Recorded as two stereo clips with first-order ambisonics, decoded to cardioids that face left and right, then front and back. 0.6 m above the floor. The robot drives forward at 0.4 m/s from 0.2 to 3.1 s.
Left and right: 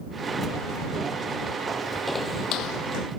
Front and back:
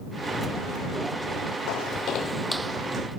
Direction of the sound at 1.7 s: 20° right.